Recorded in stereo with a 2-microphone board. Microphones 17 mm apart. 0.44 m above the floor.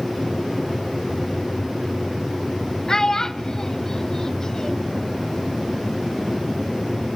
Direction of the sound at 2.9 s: 40° left (ahead or behind).